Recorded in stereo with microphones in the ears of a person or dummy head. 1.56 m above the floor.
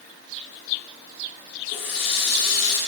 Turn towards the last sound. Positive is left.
turn(degrees=35)  # may be behind; listen again after turning